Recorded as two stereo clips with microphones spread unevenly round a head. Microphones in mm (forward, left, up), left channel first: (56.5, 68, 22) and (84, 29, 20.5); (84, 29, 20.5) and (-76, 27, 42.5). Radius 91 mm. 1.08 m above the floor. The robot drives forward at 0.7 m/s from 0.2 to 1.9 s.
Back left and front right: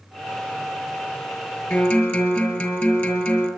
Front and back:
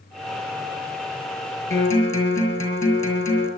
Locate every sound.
1.7 s a guitar: 75° left, 6 m